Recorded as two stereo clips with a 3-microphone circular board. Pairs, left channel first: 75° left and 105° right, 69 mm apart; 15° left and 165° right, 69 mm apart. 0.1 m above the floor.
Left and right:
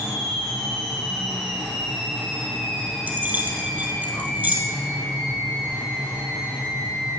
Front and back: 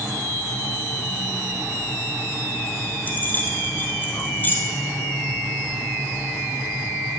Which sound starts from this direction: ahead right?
Keys jangling, at 3.1 s.